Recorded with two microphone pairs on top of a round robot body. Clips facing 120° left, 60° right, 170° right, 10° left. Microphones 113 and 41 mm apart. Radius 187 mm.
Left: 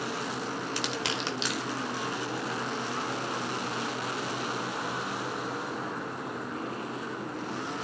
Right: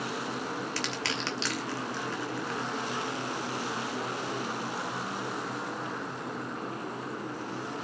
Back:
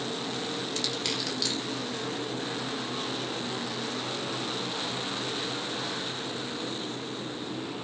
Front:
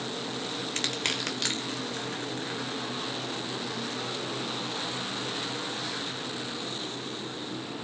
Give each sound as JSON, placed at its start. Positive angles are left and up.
{"t": 0.8, "sound": "crushing", "azimuth_deg": 50, "distance_m": 2.5}